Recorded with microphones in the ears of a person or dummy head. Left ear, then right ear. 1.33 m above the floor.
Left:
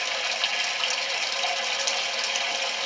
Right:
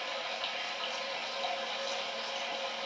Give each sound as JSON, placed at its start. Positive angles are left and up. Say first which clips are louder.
{"t": 0.0, "sound": "running water", "louder": "left 10 dB", "side_deg": 75, "distance_m": 0.8}